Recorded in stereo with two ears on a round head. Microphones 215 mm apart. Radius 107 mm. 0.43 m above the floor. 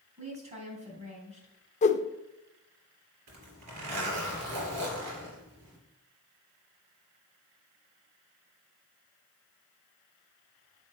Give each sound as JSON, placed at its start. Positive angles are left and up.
{"t": 0.2, "sound": "a woman speaking", "side_deg": -30, "distance_m": 3.0}
{"t": 1.8, "sound": "a whoosh", "side_deg": 30, "distance_m": 0.5}
{"t": 3.3, "sound": "a zipper", "side_deg": -80, "distance_m": 3.0}